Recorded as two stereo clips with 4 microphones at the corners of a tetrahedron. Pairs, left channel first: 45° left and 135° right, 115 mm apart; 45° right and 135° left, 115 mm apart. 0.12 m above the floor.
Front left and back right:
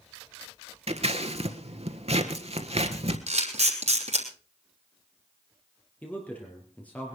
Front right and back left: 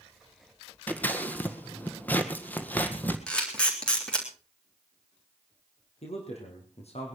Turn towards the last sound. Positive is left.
turn(degrees=-30)